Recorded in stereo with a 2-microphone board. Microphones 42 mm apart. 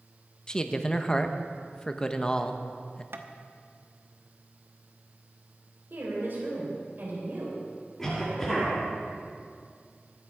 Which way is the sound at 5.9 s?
55° right (ahead or behind).